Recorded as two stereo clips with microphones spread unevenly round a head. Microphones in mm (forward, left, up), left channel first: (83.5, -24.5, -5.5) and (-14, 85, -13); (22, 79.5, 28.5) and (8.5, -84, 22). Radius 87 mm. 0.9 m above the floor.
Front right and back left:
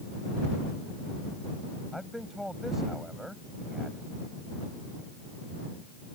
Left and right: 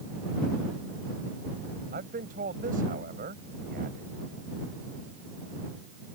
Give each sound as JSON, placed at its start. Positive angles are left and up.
{"t": 1.9, "sound": "a man speaking", "azimuth_deg": -140}